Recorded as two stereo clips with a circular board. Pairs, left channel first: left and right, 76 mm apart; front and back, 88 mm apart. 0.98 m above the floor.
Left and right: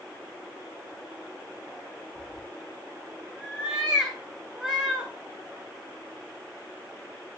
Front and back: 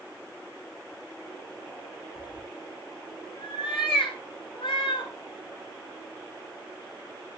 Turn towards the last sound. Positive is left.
turn(degrees=-5)